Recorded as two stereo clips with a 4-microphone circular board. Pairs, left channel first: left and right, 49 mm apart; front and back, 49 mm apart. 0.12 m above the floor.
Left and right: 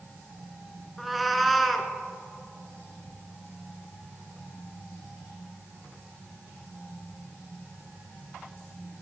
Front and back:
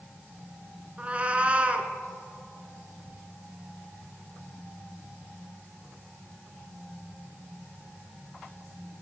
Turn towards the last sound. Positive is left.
turn(degrees=-175)